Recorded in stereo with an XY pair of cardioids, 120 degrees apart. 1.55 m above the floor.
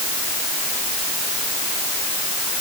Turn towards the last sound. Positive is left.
No sound to turn to.